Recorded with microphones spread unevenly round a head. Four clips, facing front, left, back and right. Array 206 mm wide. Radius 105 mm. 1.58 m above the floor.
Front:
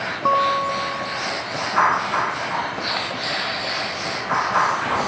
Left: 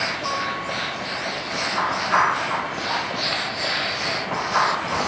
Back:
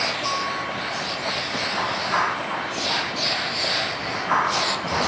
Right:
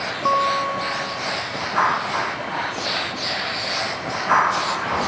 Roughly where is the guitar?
Ahead right.